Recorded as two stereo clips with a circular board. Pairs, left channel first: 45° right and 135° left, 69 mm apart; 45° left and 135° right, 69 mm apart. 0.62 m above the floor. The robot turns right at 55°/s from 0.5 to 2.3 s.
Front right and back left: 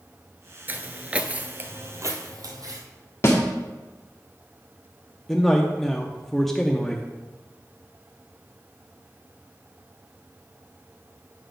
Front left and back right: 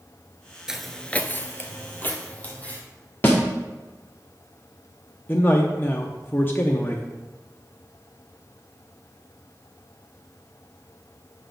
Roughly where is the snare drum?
Ahead.